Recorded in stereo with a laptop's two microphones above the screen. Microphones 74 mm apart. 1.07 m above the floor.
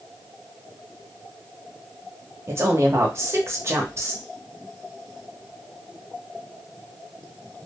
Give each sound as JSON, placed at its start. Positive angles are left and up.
{"t": 2.5, "sound": "a woman speaking", "side_deg": -40, "distance_m": 0.8}